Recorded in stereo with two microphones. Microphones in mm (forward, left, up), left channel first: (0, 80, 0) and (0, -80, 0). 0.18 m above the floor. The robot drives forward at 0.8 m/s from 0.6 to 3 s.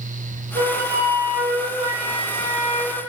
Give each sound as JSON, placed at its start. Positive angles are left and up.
{"t": 0.6, "sound": "a flute", "side_deg": -75, "distance_m": 2.0}